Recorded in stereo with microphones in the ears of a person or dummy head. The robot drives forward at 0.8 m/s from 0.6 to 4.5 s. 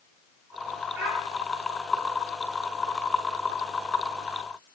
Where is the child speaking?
60° right (ahead or behind), 5 m; by 1.2 s 55° right (ahead or behind), 5 m.